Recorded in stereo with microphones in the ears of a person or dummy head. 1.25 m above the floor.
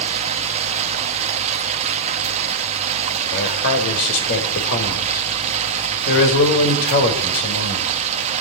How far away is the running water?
About 1.2 m.